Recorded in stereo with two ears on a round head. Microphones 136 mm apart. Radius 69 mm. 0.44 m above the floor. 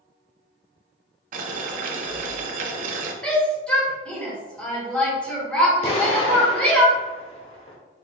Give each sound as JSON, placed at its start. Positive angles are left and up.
{"t": 1.3, "sound": "boiling", "side_deg": -55, "distance_m": 0.7}
{"t": 3.2, "sound": "a shout", "side_deg": 5, "distance_m": 1.4}
{"t": 5.8, "sound": "an explosion", "side_deg": 35, "distance_m": 0.8}